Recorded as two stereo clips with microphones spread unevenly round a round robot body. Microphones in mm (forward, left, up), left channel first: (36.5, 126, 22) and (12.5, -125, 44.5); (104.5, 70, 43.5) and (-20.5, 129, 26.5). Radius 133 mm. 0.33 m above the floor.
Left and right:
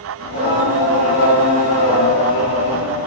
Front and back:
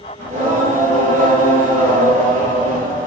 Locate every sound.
0.2 s singing: 130° left, 3.5 m